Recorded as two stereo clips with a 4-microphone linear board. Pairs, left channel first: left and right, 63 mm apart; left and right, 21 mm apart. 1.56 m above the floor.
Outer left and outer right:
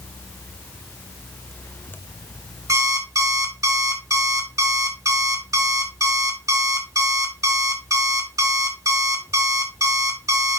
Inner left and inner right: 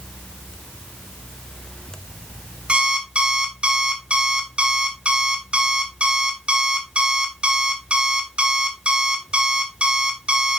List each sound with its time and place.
2.7 s an alarm clock: 50° right (ahead or behind), 1.9 m